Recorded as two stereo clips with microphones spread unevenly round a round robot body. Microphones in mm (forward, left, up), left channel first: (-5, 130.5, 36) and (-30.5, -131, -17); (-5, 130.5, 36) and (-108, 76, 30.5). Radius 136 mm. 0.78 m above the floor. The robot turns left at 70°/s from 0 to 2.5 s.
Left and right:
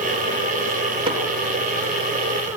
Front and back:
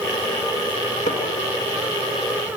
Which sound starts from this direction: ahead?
Hammering, at 1.1 s.